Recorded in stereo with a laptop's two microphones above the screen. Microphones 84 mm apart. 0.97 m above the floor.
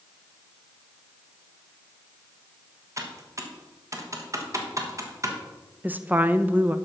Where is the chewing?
No chewing in this recording.